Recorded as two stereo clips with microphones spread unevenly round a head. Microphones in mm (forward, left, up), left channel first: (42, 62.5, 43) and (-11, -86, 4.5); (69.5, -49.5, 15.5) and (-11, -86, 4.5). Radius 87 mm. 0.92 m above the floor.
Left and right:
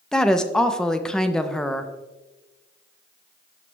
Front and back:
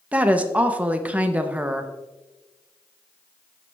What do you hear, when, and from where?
0.1 s a woman speaking: 175° right, 0.5 m